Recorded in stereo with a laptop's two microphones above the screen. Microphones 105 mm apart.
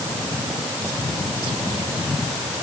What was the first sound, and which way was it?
Only background noise.